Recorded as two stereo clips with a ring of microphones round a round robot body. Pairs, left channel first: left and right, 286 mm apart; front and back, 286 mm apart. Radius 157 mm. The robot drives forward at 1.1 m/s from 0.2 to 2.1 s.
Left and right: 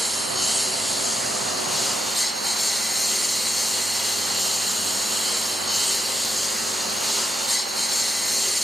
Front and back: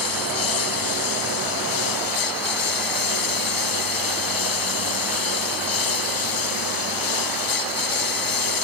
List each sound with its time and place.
0.0 s a lawn mower: straight ahead